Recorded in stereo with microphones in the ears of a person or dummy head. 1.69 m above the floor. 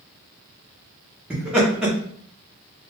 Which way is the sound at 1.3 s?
10° right (ahead or behind).